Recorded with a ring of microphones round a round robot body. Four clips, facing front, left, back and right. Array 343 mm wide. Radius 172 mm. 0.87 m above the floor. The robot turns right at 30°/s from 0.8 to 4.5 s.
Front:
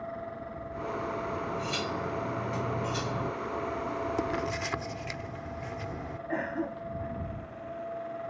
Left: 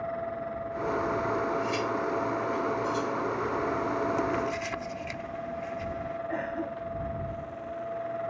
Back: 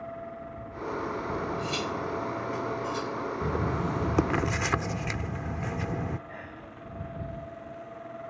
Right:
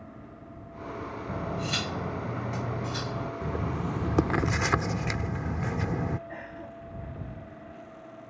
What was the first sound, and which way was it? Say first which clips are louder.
Cutlery clinking: left 5 dB, back 2 dB; 105° right.